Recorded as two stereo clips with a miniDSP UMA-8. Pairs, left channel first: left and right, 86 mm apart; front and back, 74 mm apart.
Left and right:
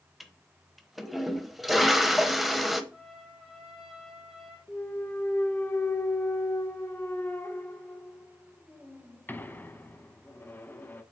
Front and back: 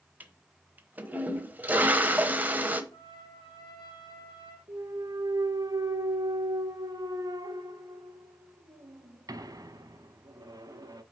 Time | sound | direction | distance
0.2 | a toilet flushing | 175° right | 0.9 m
2.9 | a trumpet | straight ahead | 2.5 m
4.7 | a clunk | 155° left | 0.8 m